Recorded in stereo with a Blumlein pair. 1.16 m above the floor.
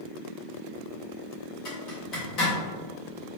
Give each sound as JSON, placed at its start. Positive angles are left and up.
{"t": 1.6, "sound": "a zipper", "azimuth_deg": 35, "distance_m": 1.4}